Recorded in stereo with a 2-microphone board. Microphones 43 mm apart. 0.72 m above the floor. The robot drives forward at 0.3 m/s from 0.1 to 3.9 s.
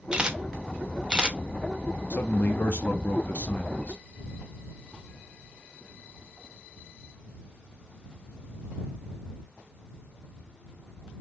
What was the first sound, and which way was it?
A camera shutter, 20° right (ahead or behind).